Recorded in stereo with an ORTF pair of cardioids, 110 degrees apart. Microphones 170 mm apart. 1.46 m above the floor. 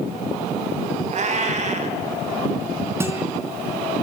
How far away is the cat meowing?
About 3.5 m.